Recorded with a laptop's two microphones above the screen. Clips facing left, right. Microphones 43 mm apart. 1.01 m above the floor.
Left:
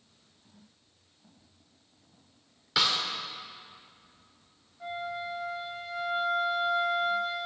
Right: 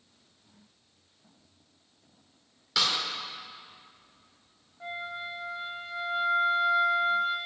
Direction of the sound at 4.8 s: 15° right (ahead or behind).